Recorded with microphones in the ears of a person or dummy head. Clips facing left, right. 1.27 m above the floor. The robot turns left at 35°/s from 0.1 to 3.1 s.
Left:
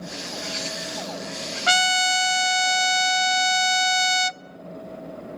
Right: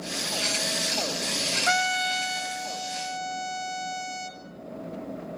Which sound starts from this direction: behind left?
A trumpet, at 1.7 s.